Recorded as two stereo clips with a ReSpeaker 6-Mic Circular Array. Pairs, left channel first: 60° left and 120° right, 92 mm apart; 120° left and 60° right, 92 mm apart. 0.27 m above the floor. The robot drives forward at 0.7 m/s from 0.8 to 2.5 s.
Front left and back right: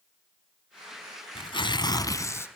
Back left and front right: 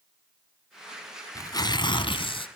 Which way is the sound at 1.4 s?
70° left.